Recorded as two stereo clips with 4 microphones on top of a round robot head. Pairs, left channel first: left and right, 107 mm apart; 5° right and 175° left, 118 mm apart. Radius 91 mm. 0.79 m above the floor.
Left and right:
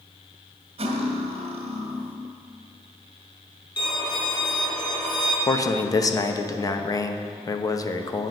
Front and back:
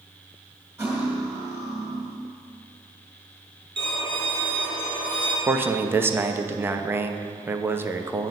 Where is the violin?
135° left, 3.5 m.